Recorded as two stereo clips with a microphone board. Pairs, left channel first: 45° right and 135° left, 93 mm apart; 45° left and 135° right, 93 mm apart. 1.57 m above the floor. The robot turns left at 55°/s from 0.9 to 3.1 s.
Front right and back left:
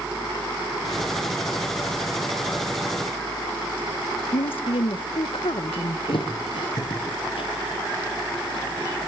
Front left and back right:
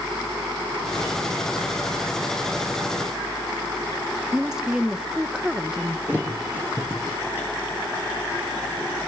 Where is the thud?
65° right, 5.5 m.